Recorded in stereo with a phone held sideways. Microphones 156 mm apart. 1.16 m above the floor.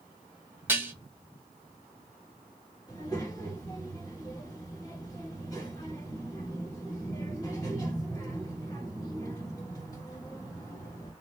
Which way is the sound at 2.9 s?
25° left (ahead or behind).